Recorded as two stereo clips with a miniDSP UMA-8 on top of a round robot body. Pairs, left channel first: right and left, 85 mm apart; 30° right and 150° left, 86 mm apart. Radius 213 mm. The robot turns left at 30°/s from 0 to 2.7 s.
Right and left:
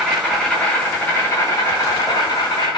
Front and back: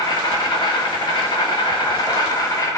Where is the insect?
5° left, 0.7 m; by 2.8 s 80° right, 0.7 m.